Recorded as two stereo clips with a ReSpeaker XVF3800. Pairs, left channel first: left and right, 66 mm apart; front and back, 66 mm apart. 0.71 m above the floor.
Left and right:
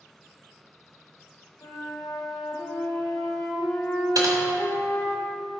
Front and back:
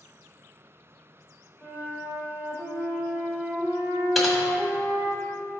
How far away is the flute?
About 2 m.